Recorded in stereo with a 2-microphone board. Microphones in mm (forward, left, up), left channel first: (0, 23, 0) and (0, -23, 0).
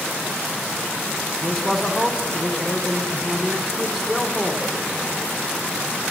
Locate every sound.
1.4 s a man speaking: 15° right (ahead or behind), 1.1 m